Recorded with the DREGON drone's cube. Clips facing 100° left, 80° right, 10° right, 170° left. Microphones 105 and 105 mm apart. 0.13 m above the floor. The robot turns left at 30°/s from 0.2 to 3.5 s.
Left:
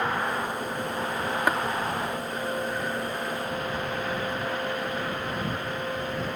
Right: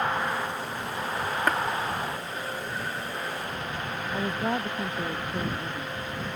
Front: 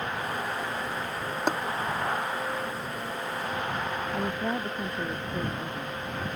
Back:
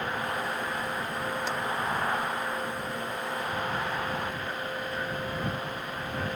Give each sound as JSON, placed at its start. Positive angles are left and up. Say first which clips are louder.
{"t": 1.5, "sound": "tapping", "louder": "left 1 dB, front 5 dB", "azimuth_deg": 20}
{"t": 4.1, "sound": "a woman speaking", "louder": "right 1 dB, front 4 dB", "azimuth_deg": -30}